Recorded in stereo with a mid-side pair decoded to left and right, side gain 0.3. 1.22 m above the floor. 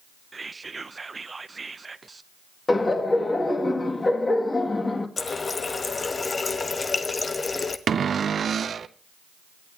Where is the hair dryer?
I don't hear a hair dryer.